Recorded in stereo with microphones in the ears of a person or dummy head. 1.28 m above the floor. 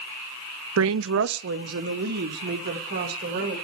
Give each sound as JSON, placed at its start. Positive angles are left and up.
{"t": 0.8, "sound": "a woman speaking", "side_deg": -85, "distance_m": 0.6}